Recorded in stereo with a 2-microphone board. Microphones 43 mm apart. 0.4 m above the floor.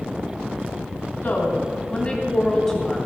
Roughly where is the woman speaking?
Left.